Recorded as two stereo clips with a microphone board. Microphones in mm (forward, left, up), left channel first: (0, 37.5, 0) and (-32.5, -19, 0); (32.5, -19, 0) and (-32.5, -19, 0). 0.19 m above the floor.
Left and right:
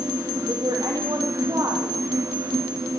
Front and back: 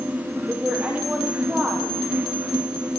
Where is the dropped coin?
I don't hear a dropped coin.